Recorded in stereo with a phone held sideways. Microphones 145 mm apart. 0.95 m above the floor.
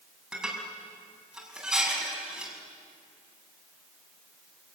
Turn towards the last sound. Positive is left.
turn(degrees=-5)  # may be behind; listen again after turning